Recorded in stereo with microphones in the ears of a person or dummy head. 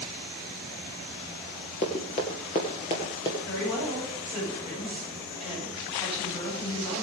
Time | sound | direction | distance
1.8 | running footsteps | 35° left (ahead or behind) | 2 m
3.5 | a woman speaking | 30° left (ahead or behind) | 9.5 m